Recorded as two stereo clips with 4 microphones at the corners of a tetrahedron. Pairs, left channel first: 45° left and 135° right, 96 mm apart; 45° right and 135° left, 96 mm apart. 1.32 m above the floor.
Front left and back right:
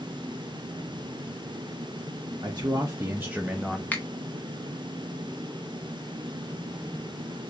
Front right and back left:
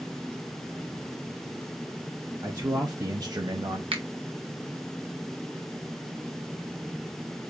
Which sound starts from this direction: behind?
A man speaking, at 2.4 s.